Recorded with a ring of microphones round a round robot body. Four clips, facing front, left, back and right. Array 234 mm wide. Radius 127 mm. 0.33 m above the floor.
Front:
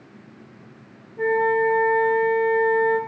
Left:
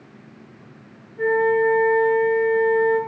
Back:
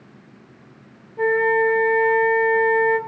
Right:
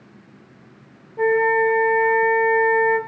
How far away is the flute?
About 1.2 m.